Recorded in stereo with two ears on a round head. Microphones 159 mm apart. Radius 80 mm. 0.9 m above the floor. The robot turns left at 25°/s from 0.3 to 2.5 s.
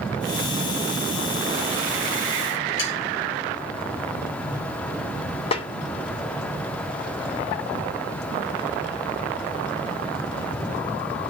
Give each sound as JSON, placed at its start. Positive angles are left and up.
{"t": 2.8, "sound": "sawing", "side_deg": 85, "distance_m": 6.0}
{"t": 5.5, "sound": "a snare drum", "side_deg": 30, "distance_m": 0.6}